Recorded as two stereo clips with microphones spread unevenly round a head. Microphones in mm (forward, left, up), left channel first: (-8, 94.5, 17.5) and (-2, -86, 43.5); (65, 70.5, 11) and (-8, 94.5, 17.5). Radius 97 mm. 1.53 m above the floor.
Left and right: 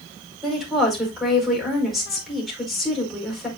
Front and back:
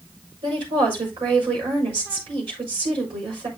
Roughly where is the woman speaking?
Behind.